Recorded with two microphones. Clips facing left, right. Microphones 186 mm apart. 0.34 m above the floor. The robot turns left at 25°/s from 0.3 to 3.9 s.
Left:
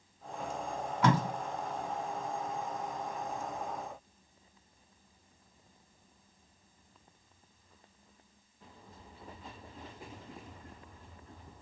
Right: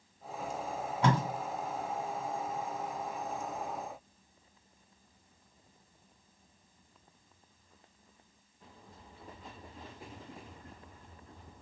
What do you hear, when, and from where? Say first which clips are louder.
1.0 s tape being pulled: left 1 dB; 30° right (ahead or behind), 1.4 m; by 1.2 s 35° right (ahead or behind), 1.4 m